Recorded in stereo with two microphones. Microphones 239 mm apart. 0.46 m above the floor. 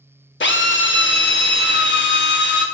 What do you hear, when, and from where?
0.4 s a drill: 50° left (ahead or behind), 0.5 m